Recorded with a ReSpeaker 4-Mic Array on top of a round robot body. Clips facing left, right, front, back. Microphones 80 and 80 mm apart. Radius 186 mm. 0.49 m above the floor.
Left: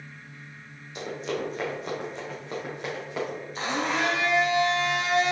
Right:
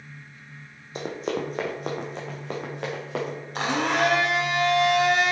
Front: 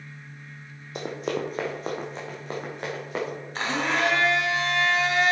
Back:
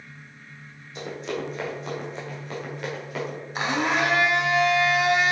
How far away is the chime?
I don't hear a chime.